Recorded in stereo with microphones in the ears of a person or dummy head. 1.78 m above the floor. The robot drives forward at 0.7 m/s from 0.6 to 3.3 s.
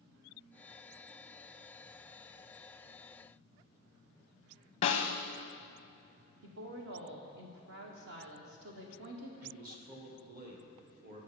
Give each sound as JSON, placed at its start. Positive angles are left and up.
{"t": 4.8, "sound": "a snare drum", "side_deg": 30, "distance_m": 0.5}
{"t": 6.4, "sound": "a woman speaking", "side_deg": -75, "distance_m": 1.3}
{"t": 9.4, "sound": "a man speaking", "side_deg": -45, "distance_m": 1.8}